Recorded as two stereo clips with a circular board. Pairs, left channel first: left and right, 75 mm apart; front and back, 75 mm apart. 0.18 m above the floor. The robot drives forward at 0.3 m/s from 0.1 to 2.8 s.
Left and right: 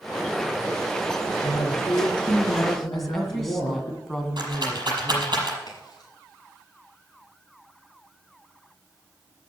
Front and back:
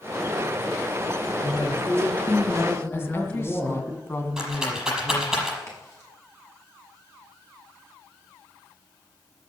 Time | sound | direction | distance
1.4 | a woman speaking | 70° left | 7 m
2.9 | a woman speaking | 5° left | 1.8 m
4.4 | a rattle | 100° right | 6 m
5.7 | a crack | 55° left | 6 m